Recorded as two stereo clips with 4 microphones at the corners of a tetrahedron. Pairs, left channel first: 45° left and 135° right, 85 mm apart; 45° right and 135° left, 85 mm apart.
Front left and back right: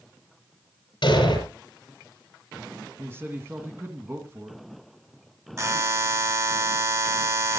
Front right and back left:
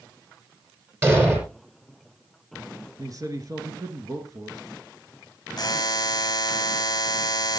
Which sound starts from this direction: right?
A buzzer, at 5.6 s.